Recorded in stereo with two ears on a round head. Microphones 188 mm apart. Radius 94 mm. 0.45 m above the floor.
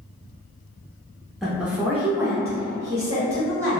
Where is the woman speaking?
Centre (ahead or behind), 0.7 m; by 3.8 s 15° right (ahead or behind), 1.7 m.